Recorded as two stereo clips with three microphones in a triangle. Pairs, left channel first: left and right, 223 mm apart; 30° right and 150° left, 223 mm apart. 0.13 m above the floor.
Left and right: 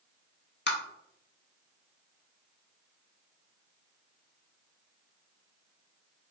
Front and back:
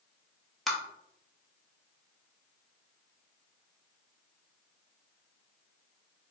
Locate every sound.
0.7 s tapping: 60° left, 0.6 m